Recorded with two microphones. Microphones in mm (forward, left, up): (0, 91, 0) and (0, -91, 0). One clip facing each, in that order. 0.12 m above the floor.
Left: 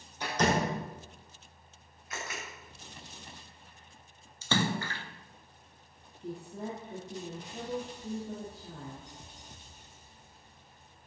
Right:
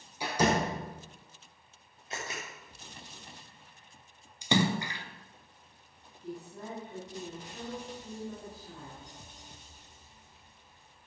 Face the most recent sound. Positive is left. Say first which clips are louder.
# left 3 dB
turn(degrees=25)  # may be behind; listen again after turning